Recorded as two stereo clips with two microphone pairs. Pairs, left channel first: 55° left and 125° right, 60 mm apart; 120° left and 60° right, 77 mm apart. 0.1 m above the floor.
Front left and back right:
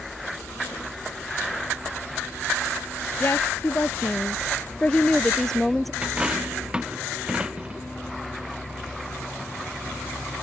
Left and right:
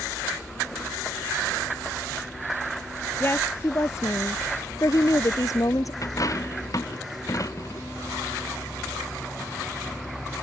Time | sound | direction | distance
3.2 | a woman speaking | 75° left | ?
6.0 | a dropped coin | 160° left | ?